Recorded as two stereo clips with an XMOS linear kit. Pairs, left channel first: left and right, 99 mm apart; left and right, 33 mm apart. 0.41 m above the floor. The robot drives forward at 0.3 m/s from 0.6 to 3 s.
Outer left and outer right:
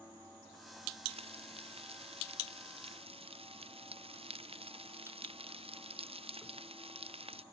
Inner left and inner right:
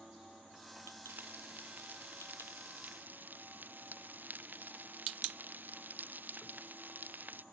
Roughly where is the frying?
Right.